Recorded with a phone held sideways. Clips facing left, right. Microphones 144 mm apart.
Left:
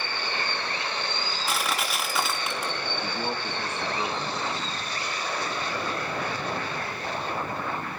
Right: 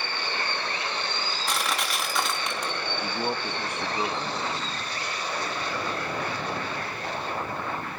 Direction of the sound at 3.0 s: 15° right (ahead or behind).